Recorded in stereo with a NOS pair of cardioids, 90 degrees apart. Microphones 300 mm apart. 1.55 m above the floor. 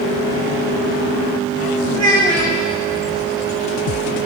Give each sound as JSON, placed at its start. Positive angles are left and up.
{"t": 1.9, "sound": "a child speaking", "azimuth_deg": 15, "distance_m": 1.1}